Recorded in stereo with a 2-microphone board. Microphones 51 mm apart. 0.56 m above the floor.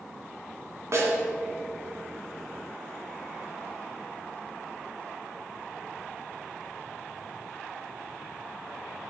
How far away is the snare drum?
About 1.8 m.